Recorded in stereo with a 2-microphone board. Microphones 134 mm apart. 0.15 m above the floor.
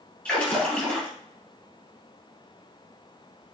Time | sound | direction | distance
0.2 | a splash | 10° left (ahead or behind) | 2.5 m